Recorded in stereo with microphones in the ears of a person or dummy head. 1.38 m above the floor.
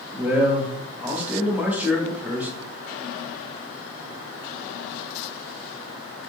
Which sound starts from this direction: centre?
A man speaking, at 0.1 s.